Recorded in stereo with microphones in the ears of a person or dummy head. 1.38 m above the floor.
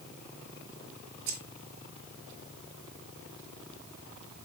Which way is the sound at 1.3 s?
70° right (ahead or behind).